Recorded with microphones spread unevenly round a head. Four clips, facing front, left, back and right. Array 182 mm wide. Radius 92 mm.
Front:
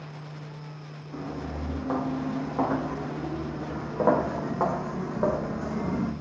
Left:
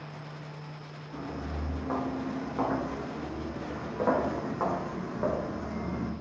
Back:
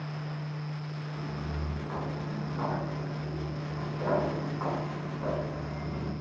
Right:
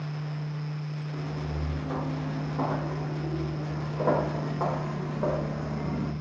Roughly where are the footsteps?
Ahead.